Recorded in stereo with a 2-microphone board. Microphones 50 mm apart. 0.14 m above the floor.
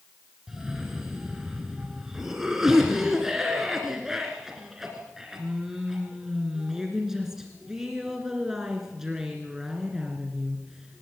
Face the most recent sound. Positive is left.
turn(degrees=-10)  # may be behind; listen again after turning